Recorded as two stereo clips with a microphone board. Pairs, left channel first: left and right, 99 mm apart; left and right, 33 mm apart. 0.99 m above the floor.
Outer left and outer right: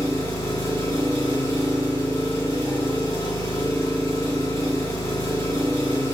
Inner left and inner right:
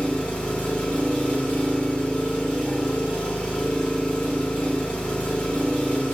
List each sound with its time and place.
0.0 s an engine running: 30° left (ahead or behind), 1.6 m